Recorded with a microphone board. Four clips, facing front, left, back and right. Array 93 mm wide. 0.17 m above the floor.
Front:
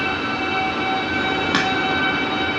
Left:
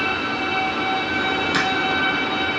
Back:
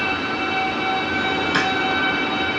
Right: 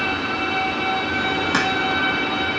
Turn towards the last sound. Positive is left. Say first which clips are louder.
# right 2 dB, even
turn(degrees=-20)